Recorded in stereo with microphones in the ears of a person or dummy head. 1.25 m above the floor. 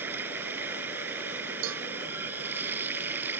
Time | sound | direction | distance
0.0 | running water | 15° right (ahead or behind) | ?
1.6 | a cowbell | 70° right (ahead or behind) | ?